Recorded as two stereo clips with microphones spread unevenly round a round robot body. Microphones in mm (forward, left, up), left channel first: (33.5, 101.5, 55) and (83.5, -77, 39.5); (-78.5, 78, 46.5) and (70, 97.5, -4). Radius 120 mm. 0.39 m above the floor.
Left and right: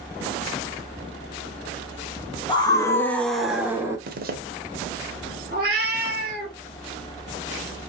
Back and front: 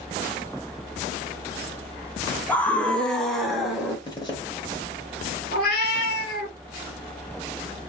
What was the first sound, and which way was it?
A scream, 75° left.